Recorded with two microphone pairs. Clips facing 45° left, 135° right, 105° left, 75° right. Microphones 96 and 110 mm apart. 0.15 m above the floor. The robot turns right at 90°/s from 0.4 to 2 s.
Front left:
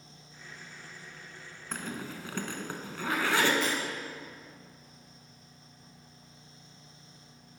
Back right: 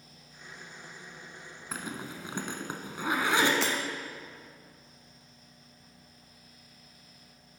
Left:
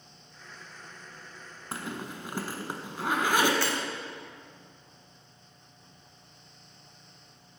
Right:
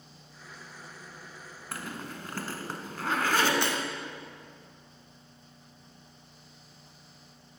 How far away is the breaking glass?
About 1.0 m.